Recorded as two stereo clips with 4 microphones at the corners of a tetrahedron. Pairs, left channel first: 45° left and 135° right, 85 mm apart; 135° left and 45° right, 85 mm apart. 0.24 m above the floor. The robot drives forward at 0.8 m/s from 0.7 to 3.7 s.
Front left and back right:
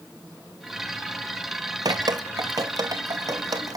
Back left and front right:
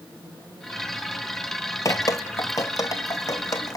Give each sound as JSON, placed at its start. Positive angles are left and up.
{"t": 1.9, "sound": "dripping", "azimuth_deg": -175, "distance_m": 0.6}